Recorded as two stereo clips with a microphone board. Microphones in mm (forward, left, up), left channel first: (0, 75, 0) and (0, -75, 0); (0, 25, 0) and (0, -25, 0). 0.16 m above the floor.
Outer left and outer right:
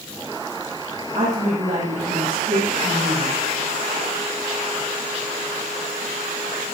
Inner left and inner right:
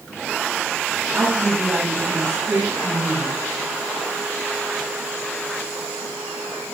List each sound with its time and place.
1.1 s a woman speaking: 50° right (ahead or behind), 3.5 m